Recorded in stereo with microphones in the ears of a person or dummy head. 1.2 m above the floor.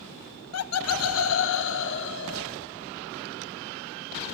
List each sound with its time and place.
0.5 s laughter: 70° left (ahead or behind), 1.0 m; by 2.6 s 65° left (ahead or behind), 3 m